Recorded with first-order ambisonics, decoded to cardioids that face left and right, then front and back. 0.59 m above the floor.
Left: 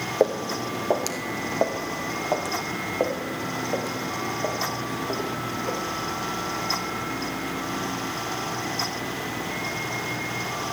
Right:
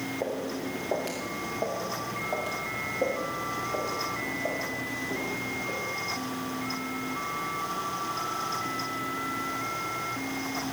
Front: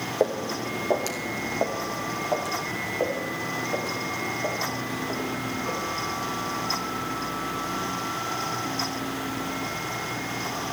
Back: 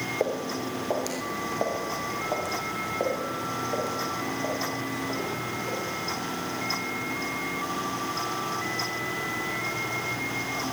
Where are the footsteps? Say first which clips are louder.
Left 11 dB, front 5 dB; 75° left, 1.7 m; by 5.8 s 90° left, 5 m.